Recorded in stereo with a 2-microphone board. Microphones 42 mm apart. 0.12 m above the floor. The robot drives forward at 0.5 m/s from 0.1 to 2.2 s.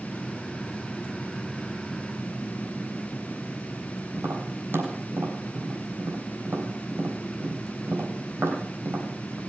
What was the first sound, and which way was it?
Tapping, 65° right (ahead or behind).